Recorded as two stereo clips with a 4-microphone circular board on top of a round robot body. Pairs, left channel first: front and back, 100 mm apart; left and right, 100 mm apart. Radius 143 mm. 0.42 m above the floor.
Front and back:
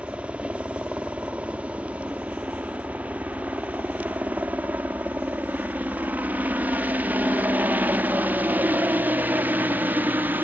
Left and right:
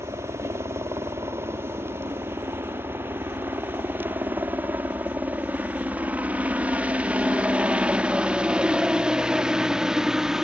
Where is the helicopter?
115° right; by 10.4 s 165° right.